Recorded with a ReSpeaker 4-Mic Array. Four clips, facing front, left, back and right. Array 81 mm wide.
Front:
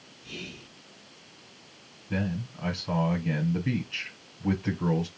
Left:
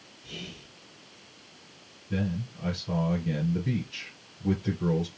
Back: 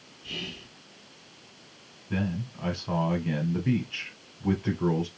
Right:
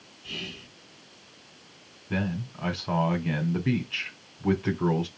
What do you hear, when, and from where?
0.2 s whispering: 130° right, 2.5 m
2.1 s a man speaking: 90° right, 2.0 m